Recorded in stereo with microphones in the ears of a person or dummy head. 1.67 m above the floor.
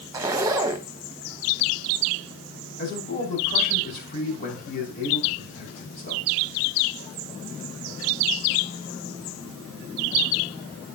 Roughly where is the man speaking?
Left.